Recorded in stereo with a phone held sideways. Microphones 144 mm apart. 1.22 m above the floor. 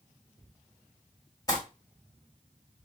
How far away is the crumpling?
About 1.6 m.